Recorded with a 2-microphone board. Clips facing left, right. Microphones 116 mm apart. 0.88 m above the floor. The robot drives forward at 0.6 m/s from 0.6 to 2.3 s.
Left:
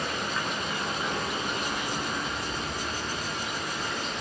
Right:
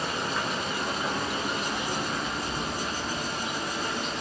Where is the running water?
5° right (ahead or behind), 9 m.